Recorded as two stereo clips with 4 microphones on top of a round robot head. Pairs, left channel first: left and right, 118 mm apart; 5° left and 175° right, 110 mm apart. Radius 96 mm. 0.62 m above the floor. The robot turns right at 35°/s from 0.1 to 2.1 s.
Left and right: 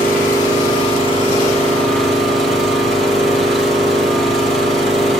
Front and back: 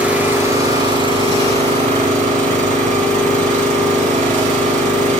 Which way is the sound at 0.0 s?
110° left.